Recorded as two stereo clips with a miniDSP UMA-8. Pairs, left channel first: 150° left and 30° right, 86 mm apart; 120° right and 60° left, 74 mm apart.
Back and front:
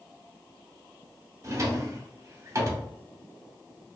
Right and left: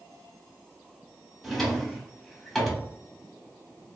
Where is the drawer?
35° right, 0.6 m.